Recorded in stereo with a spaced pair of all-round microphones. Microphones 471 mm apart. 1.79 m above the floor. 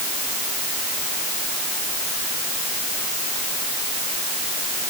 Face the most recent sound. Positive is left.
No sound to turn to.